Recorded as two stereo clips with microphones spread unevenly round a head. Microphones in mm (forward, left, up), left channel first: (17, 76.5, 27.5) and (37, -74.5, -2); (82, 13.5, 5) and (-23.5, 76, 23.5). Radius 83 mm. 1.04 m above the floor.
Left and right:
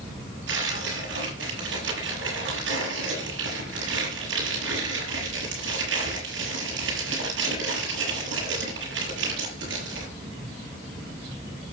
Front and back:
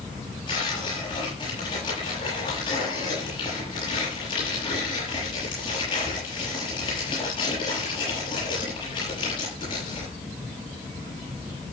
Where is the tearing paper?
95° right, 7 m.